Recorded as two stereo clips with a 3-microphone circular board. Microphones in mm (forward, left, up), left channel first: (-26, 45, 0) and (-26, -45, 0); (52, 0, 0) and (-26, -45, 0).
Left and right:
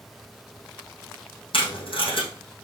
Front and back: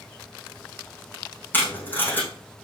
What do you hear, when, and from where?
1.5 s tape being pulled: 100° left, 4 m